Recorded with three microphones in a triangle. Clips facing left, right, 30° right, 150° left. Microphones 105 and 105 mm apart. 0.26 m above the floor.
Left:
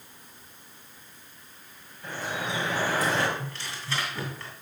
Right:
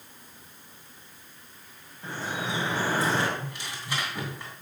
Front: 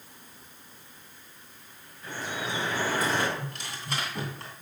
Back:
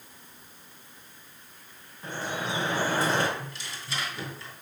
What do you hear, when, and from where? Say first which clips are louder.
2.0 s dripping: even, back 2 dB; 150° right, 3 m
3.4 s tearing paper: even, front 2 dB; 20° right, 2.5 m